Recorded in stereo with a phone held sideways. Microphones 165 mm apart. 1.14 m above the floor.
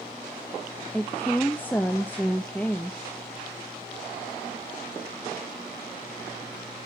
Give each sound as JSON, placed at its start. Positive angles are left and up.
{"t": 0.9, "sound": "a woman speaking", "side_deg": 10, "distance_m": 0.8}